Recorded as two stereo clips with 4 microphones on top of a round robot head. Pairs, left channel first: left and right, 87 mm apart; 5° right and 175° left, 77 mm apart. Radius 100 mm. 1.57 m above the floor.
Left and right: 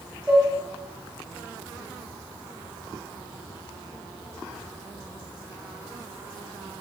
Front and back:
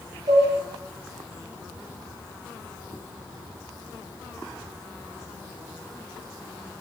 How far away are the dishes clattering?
About 3 m.